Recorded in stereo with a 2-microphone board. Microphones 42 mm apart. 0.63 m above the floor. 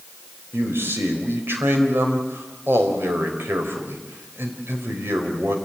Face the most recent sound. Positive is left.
turn(degrees=-70)  # may be behind; listen again after turning